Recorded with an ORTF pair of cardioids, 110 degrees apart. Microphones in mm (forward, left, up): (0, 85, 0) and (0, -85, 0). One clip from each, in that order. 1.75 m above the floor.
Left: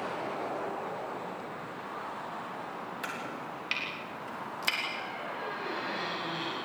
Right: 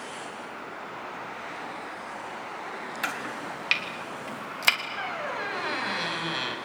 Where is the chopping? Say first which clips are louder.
Right 8 dB; 50° right, 3.5 m.